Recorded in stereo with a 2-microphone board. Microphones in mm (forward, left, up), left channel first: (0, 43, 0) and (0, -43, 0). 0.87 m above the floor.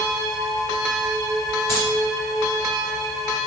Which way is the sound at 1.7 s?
30° left (ahead or behind).